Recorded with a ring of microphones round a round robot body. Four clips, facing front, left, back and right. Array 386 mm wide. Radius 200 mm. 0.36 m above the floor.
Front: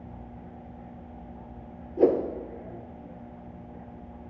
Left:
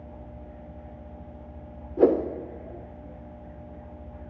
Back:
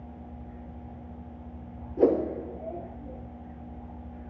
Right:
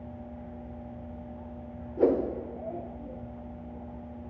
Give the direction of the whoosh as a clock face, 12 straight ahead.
9 o'clock.